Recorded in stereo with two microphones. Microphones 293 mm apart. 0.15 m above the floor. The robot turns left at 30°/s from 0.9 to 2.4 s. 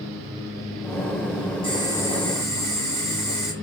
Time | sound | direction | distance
1.6 | boiling | 20° left (ahead or behind) | 1.9 m